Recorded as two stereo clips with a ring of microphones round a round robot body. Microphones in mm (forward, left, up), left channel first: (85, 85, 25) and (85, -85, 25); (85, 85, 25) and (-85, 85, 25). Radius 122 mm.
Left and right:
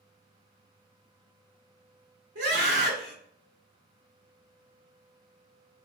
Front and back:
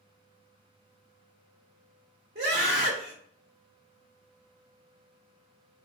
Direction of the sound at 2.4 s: 125° right.